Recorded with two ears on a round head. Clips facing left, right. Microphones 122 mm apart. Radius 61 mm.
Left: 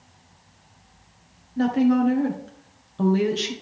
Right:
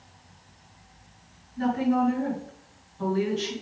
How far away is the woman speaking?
About 1.5 m.